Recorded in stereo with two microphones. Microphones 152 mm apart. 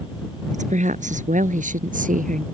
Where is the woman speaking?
50° right (ahead or behind); by 2.4 s 55° right (ahead or behind).